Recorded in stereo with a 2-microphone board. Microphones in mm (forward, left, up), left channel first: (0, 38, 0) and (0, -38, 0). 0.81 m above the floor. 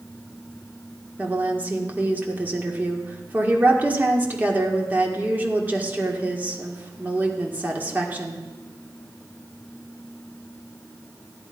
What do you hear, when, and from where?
1.2 s a woman speaking: 20° right (ahead or behind), 1.9 m